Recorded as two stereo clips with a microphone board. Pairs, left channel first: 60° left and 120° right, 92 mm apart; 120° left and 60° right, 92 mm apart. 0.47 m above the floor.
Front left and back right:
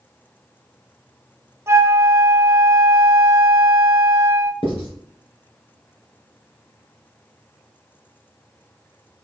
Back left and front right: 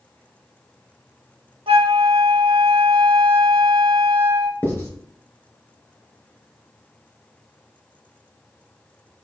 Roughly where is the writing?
Ahead left.